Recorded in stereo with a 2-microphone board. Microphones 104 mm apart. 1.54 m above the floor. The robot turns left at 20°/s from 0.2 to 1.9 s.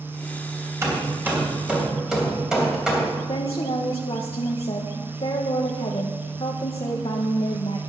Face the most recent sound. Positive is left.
turn(degrees=55)  # may be behind; listen again after turning